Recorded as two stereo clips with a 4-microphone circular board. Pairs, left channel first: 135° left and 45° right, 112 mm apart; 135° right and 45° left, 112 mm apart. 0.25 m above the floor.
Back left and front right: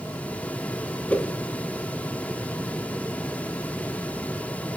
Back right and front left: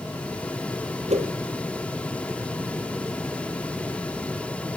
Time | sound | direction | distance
1.1 | a whoosh | 55° left | 1.5 m